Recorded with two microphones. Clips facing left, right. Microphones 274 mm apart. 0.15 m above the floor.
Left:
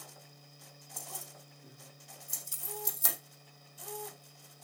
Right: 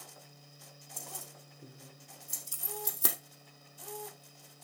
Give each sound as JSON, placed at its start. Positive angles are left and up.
{"t": 1.0, "sound": "keys jangling", "side_deg": -80, "distance_m": 5.0}
{"t": 2.5, "sound": "keys jangling", "side_deg": 25, "distance_m": 0.8}